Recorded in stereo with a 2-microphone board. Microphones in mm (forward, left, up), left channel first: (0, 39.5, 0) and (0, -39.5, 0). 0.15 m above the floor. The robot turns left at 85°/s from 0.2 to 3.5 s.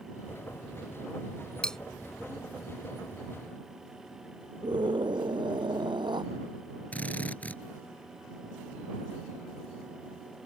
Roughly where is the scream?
Right.